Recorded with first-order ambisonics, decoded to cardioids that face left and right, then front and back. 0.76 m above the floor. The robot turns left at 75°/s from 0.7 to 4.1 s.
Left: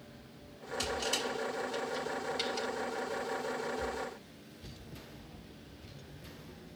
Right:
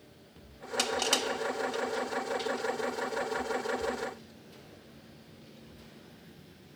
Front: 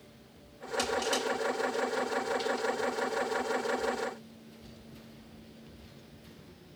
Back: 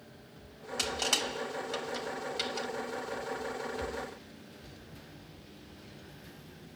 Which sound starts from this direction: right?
Crushing, at 0.8 s.